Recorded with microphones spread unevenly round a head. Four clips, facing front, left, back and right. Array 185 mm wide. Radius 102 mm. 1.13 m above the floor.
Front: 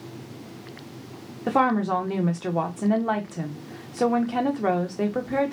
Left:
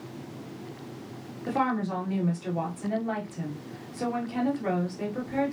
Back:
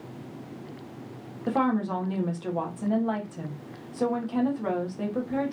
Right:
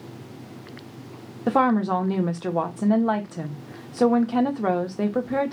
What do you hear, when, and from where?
1.5 s a woman speaking: 50° right, 1.3 m